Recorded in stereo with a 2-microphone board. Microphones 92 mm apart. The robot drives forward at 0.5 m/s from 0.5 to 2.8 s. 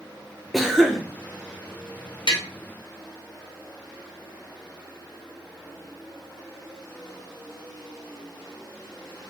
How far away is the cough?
About 0.7 m.